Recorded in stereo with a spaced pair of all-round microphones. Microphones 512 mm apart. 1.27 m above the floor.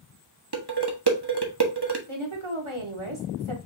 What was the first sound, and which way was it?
Dishes clattering, 50° right (ahead or behind).